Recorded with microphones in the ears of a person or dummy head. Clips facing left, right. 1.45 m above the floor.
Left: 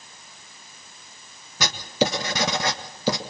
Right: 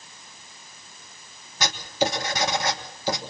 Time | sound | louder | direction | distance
1.6 | writing | left 2 dB | 65° left (ahead or behind) | 1.9 m